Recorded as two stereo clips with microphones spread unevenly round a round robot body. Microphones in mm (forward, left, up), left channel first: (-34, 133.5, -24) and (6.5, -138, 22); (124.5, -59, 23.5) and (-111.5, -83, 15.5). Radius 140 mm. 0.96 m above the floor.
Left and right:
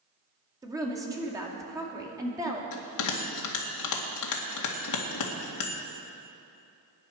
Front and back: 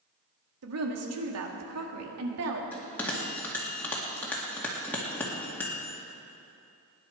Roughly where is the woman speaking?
Behind.